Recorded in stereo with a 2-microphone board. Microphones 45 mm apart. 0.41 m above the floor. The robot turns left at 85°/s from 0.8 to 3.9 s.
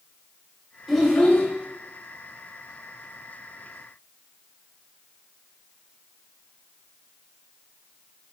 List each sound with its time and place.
0.9 s a child speaking: 175° right, 1.1 m; by 1.5 s 140° left, 1.1 m